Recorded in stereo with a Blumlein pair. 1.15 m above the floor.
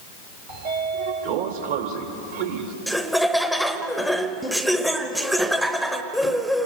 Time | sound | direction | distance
0.5 | a sliding door | 55° right | 2.0 m
2.9 | laughter | 5° right | 0.9 m